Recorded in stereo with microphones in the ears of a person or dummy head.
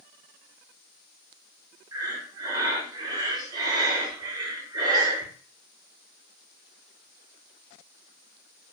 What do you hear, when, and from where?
1.9 s breathing: 20° right (ahead or behind), 0.7 m